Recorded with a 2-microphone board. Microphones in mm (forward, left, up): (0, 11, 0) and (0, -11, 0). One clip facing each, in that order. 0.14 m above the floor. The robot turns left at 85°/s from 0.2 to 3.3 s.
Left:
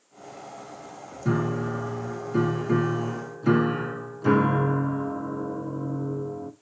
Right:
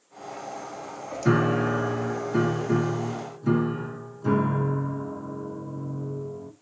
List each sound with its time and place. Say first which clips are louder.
1.2 s a piano: right 4 dB; 60° right, 0.6 m; by 6.5 s 125° left, 0.6 m